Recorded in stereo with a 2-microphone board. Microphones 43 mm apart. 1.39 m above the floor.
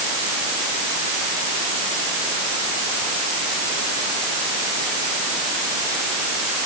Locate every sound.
Only background noise.